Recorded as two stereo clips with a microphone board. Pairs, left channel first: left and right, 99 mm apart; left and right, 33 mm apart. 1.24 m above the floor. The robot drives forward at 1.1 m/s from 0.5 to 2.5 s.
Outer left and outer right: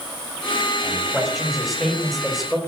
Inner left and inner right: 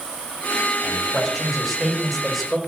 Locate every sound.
0.8 s a man speaking: centre (ahead or behind), 6.5 m